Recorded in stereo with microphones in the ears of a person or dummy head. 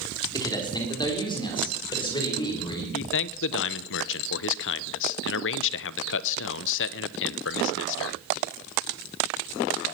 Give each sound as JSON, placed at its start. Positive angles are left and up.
{"t": 0.3, "sound": "a man speaking", "side_deg": 20, "distance_m": 3.5}
{"t": 2.9, "sound": "a man speaking", "side_deg": 65, "distance_m": 0.7}